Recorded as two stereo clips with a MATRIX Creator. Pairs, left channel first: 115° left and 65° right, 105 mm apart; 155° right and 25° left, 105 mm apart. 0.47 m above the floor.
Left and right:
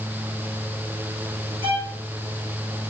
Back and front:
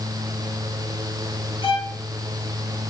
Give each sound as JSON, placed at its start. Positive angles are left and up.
{"t": 1.6, "sound": "a violin", "azimuth_deg": -135, "distance_m": 2.0}